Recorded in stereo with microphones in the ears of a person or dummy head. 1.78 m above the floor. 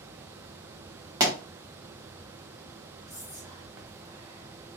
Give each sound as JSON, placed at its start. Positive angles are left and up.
{"t": 1.2, "sound": "a pop", "side_deg": -25, "distance_m": 0.9}
{"t": 3.1, "sound": "whispering", "side_deg": -20, "distance_m": 1.1}